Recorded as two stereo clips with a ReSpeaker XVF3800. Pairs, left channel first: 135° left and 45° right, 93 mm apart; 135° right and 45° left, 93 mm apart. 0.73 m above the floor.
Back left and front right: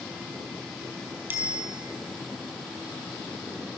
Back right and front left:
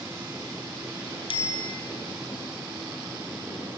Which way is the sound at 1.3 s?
115° right.